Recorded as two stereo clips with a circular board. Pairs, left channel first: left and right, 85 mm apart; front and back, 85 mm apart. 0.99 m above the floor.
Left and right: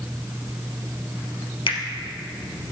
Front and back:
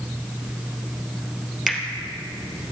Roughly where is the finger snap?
Left.